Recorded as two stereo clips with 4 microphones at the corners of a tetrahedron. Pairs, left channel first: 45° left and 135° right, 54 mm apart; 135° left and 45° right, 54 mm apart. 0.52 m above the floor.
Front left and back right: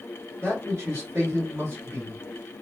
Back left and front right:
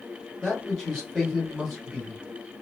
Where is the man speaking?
145° right, 1.7 m.